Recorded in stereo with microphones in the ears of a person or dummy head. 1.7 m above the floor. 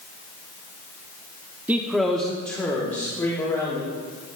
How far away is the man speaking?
About 0.7 m.